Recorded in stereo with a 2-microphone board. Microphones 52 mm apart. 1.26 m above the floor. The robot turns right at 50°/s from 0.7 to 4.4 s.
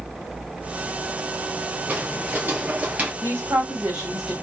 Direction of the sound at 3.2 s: 60° right.